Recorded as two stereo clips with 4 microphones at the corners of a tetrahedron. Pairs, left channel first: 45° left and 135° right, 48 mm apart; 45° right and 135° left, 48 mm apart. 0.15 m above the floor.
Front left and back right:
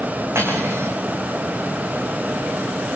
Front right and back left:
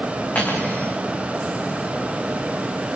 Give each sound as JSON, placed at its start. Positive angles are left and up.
{"t": 0.3, "sound": "cutlery clinking", "azimuth_deg": -100, "distance_m": 7.5}